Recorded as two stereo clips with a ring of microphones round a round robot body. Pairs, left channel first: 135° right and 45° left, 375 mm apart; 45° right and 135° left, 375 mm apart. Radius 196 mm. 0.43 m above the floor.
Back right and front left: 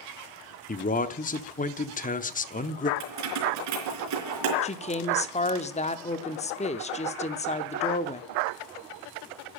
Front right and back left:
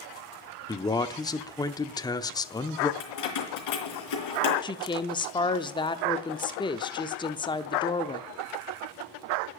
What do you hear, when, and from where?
0.7 s a man speaking: 110° right, 0.8 m
3.0 s keys jangling: straight ahead, 4 m
4.6 s a woman speaking: 100° right, 0.7 m